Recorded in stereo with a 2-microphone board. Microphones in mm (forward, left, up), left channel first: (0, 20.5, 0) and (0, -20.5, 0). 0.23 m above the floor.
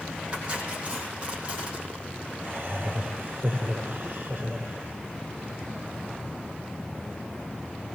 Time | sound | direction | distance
0.3 | cutlery clinking | 25° right (ahead or behind) | 6.5 m
2.4 | laughter | 40° right (ahead or behind) | 8 m